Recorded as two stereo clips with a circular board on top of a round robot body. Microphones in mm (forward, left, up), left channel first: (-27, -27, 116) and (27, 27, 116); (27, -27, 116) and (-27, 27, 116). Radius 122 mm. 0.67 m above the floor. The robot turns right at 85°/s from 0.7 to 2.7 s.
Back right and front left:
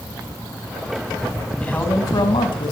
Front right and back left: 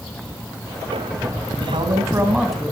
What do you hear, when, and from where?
1.6 s a man speaking: 145° left, 4.5 m; by 2.7 s 120° right, 4.5 m